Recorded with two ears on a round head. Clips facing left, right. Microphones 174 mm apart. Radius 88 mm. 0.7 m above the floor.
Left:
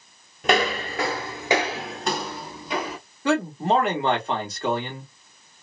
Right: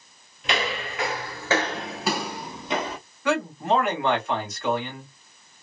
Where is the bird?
No bird in this recording.